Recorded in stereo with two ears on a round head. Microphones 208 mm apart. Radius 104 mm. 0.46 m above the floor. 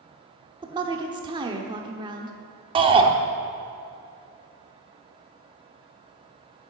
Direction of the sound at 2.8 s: 20° right (ahead or behind).